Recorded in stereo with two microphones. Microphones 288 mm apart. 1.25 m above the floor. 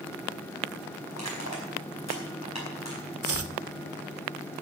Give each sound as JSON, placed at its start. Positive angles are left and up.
{"t": 1.1, "sound": "crushing", "side_deg": 60, "distance_m": 5.0}
{"t": 3.2, "sound": "chopping", "side_deg": -50, "distance_m": 0.6}